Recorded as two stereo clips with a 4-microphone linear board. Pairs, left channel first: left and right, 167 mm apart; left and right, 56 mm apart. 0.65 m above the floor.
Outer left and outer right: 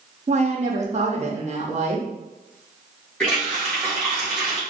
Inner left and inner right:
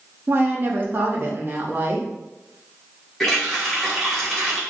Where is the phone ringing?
No phone ringing in this recording.